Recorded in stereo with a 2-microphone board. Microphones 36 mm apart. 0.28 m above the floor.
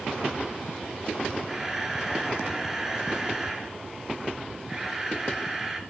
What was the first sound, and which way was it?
A camera shutter, 15° right (ahead or behind).